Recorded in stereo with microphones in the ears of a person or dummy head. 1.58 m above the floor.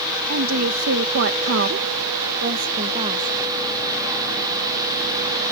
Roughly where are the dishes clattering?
I don't hear dishes clattering.